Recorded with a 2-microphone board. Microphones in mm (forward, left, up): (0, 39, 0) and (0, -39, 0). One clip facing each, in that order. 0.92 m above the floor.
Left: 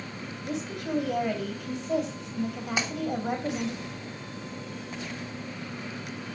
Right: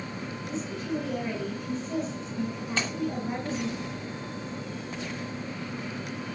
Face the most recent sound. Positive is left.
turn(degrees=15)  # may be behind; listen again after turning